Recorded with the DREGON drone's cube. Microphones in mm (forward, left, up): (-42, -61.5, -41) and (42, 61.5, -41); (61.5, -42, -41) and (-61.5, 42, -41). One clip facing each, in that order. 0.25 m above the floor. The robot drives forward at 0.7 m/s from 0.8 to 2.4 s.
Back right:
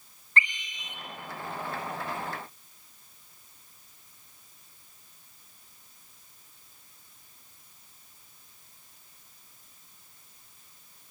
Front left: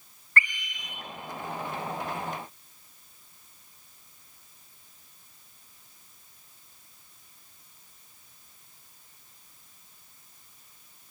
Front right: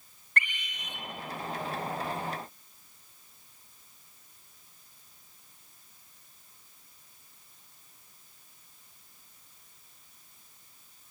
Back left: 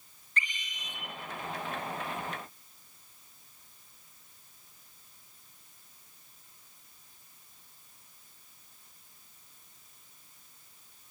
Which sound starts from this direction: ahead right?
A scream, at 0.4 s.